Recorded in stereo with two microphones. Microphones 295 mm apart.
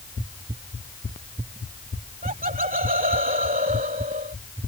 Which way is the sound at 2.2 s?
25° right (ahead or behind).